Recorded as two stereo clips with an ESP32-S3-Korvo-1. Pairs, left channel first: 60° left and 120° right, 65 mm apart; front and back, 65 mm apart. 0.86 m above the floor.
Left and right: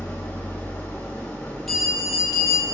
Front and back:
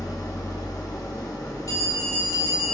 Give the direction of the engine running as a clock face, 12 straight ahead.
12 o'clock.